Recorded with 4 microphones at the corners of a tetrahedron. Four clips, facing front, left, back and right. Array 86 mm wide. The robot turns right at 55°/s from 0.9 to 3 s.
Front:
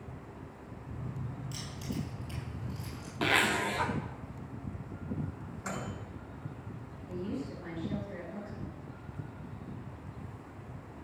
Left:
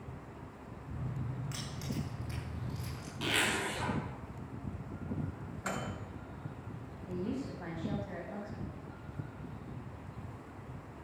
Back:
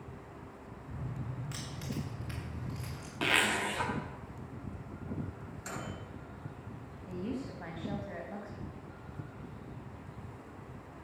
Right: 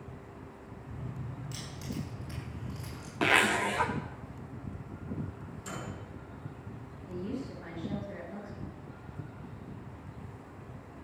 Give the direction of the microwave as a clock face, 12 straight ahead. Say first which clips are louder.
Left 4 dB, front 3 dB; 10 o'clock.